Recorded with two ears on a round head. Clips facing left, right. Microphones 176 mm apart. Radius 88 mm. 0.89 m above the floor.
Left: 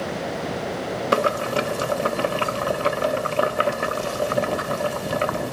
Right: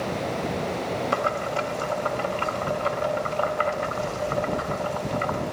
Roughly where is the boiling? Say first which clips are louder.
Left 9 dB; left.